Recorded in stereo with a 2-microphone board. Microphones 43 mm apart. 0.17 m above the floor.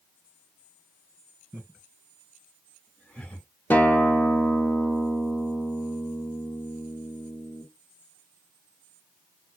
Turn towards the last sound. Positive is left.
turn(degrees=50)  # may be behind; listen again after turning